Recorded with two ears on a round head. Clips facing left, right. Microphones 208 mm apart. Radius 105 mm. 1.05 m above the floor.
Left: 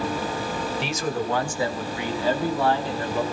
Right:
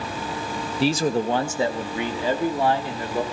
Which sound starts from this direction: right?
A man speaking, at 0.8 s.